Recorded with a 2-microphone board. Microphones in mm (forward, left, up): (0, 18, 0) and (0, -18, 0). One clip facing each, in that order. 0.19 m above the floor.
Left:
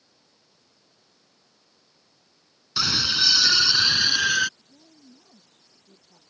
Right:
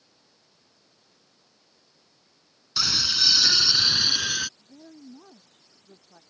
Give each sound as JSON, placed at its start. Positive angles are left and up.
{"t": 2.8, "sound": "a scream", "side_deg": 10}
{"t": 4.6, "sound": "a woman speaking", "side_deg": -80}